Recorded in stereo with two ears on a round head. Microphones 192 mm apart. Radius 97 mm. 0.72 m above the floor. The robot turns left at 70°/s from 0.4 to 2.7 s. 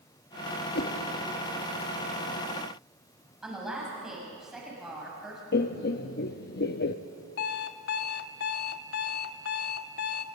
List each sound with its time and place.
0.8 s a whoosh: 50° left (ahead or behind), 1.4 m; by 1.0 s 55° left (ahead or behind), 1.4 m
3.4 s a woman speaking: centre (ahead or behind), 6 m
5.5 s laughter: 50° left (ahead or behind), 0.7 m
7.4 s an alarm clock: 45° left (ahead or behind), 0.8 m